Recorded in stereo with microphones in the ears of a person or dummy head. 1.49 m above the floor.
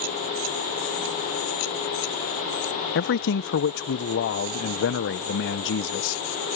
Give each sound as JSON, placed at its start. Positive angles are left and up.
{"t": 3.0, "sound": "a man speaking", "side_deg": 60}